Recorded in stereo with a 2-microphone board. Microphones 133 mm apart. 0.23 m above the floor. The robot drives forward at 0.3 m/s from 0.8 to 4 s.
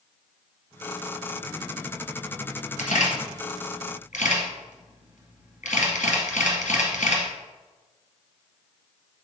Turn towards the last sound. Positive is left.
turn(degrees=70)  # may be behind; listen again after turning